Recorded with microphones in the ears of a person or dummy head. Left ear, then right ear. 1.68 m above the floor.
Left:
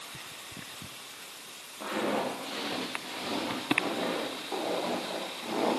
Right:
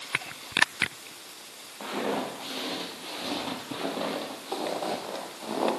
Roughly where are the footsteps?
Right.